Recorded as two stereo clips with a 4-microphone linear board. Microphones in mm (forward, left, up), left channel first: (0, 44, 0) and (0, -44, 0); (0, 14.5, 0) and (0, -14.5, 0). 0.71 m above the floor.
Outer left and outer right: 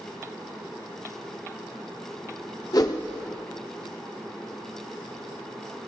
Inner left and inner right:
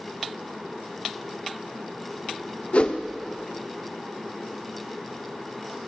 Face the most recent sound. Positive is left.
turn(degrees=45)  # may be behind; listen again after turning